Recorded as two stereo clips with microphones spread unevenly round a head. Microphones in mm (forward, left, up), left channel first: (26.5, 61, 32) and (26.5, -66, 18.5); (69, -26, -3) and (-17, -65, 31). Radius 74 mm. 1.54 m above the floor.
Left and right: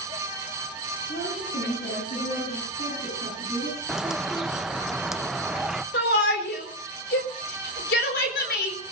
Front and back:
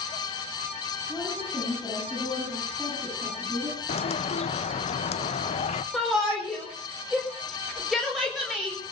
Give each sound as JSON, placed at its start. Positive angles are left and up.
{"t": 1.1, "sound": "a woman speaking", "azimuth_deg": 125, "distance_m": 9.5}
{"t": 3.9, "sound": "a bird", "azimuth_deg": 0, "distance_m": 0.7}
{"t": 5.9, "sound": "a shout", "azimuth_deg": 115, "distance_m": 4.5}